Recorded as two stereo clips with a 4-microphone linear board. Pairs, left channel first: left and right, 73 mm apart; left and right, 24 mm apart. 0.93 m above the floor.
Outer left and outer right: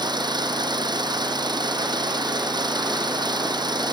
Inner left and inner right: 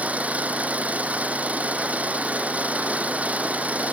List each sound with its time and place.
0.0 s an engine running: 90° right